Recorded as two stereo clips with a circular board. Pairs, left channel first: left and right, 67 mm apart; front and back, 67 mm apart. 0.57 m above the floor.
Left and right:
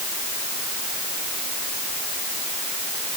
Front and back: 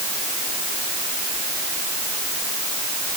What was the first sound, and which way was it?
Only background noise.